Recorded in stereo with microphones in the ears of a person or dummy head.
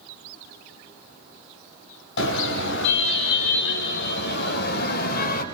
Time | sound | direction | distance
2.2 | a car horn | 80° left | 5.5 m